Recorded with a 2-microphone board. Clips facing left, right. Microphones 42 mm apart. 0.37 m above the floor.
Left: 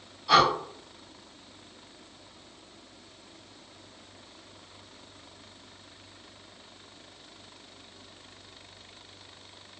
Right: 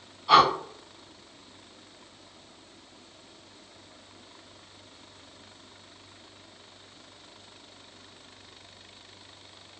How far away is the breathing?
About 1.8 m.